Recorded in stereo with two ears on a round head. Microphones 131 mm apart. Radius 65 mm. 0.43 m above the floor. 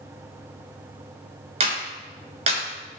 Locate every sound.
1.6 s a clap: 45° right (ahead or behind), 5.5 m